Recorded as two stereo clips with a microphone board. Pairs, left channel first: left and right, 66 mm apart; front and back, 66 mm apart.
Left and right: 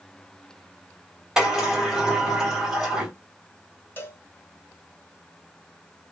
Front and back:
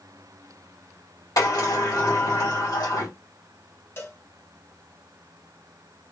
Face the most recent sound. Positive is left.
turn(degrees=40)